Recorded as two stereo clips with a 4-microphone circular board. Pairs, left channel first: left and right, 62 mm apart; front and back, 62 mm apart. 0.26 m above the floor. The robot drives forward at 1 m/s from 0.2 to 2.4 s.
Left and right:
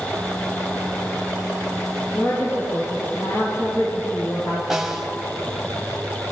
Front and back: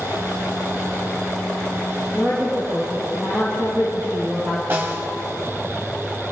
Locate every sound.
2.1 s a woman speaking: 120° left, 6 m; by 4.9 s 125° left, 6 m
4.7 s a snare drum: 165° right, 1.4 m